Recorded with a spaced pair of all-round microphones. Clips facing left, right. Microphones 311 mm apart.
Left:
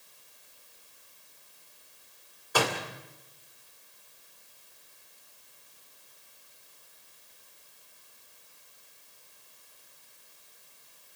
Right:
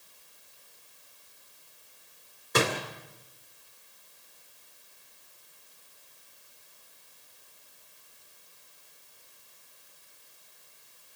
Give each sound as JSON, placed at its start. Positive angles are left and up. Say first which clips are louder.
{"t": 2.5, "sound": "a door slam", "louder": "right 2 dB", "side_deg": -25, "distance_m": 2.0}